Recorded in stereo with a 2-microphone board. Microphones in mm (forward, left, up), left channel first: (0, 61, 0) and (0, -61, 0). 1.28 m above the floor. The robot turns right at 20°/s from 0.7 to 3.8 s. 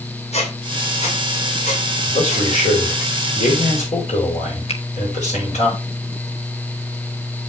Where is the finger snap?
55° left (ahead or behind), 1.1 m.